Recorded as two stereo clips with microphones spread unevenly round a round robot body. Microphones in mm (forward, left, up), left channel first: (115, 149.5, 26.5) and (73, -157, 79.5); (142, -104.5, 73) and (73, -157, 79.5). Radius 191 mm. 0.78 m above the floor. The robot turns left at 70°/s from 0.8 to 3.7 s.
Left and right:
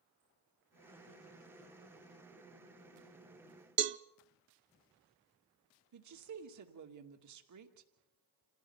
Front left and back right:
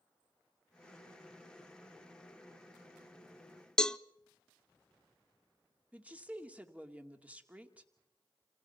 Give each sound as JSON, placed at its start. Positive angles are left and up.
{"t": 3.8, "sound": "a cowbell", "azimuth_deg": -45, "distance_m": 0.6}
{"t": 5.9, "sound": "a woman speaking", "azimuth_deg": -65, "distance_m": 2.5}